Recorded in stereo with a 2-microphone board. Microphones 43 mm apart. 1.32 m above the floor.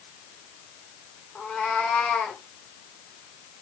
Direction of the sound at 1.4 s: 15° left (ahead or behind).